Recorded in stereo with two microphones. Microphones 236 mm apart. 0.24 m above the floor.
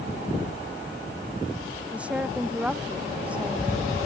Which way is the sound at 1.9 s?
5° right (ahead or behind).